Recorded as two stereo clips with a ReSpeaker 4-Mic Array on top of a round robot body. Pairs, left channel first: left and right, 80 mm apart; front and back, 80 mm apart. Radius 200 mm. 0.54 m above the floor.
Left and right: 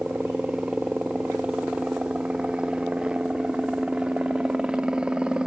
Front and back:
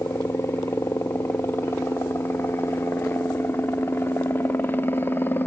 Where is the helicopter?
25° right.